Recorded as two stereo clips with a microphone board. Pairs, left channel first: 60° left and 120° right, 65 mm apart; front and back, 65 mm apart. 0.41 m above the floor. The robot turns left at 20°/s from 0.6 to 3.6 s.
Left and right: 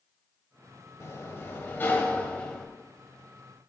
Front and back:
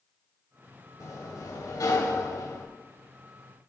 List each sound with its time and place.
1.0 s a sliding door: 20° left, 1.3 m; by 2.7 s 10° right, 1.3 m